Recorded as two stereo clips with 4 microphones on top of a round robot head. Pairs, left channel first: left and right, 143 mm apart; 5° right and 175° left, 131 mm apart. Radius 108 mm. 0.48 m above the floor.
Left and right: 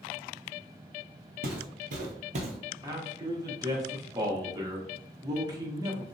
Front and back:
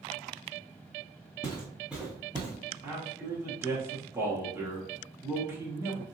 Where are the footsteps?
75° right, 0.7 m; by 2.7 s 135° right, 0.9 m.